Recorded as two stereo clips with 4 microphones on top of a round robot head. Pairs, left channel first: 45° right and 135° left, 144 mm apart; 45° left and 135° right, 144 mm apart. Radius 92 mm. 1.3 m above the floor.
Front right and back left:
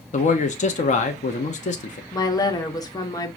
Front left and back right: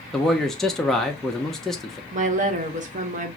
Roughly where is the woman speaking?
Right.